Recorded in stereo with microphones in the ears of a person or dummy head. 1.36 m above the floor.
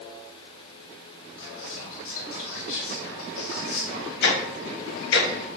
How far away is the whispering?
About 1.0 m.